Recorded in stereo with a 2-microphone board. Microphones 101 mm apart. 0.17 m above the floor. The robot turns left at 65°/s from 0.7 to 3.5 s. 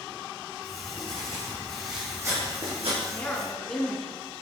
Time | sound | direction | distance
0.7 | writing | 70° left | 4.5 m
3.0 | a woman speaking | 35° left | 2 m